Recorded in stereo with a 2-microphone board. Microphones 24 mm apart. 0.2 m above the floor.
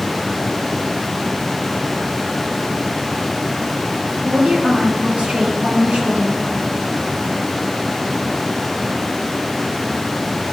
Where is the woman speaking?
50° right (ahead or behind), 4.5 m.